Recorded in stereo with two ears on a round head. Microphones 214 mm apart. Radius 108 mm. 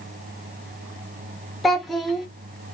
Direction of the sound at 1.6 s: Centre (ahead or behind).